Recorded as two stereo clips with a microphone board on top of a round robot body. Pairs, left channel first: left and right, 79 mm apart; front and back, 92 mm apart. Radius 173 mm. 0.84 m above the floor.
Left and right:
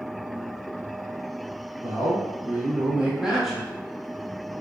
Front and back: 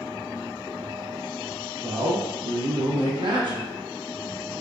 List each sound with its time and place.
1.8 s a man speaking: 150° right, 1.9 m; by 3.7 s 170° left, 0.9 m